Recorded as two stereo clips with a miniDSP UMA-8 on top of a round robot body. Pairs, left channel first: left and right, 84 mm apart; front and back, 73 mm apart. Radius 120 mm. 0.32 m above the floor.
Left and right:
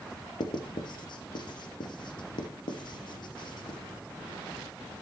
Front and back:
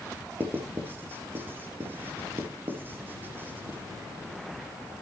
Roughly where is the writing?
Behind left.